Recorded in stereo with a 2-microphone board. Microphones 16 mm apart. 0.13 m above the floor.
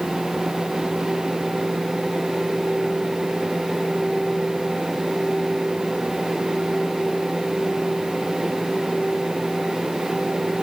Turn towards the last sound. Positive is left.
No sound to turn to.